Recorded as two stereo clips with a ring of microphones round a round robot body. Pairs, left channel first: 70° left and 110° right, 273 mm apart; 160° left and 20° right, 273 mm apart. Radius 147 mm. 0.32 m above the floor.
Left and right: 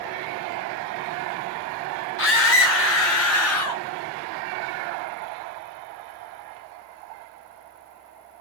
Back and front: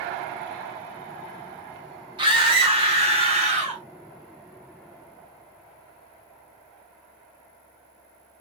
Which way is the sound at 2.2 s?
45° left.